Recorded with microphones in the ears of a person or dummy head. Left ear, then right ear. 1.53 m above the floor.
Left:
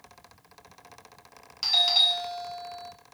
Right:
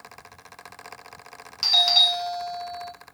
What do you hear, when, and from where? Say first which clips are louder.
1.6 s a doorbell: right 4 dB; 5° right (ahead or behind), 0.8 m